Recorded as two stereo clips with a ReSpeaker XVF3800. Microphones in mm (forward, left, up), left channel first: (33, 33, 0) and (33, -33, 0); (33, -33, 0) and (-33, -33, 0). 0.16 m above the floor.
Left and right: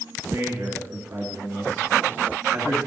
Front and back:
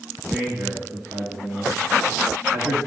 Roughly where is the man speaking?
Behind right.